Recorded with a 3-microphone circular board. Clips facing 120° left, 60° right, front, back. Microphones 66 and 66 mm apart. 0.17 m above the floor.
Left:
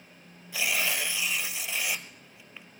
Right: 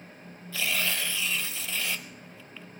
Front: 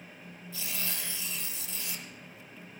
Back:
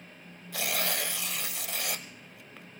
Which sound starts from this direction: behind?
Tearing paper, at 0.5 s.